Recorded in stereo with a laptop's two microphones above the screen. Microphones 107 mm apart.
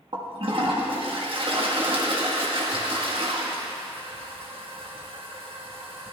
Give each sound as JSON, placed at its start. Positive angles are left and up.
{"t": 0.1, "sound": "a toilet flushing", "side_deg": -55, "distance_m": 1.2}